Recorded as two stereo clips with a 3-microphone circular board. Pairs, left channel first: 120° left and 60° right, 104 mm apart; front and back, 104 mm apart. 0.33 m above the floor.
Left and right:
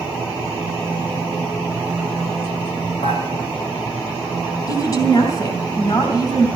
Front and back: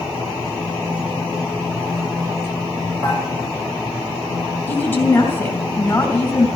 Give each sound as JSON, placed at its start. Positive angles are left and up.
{"t": 3.0, "sound": "dishes clattering", "azimuth_deg": 125, "distance_m": 7.5}
{"t": 4.7, "sound": "a woman speaking", "azimuth_deg": 70, "distance_m": 3.0}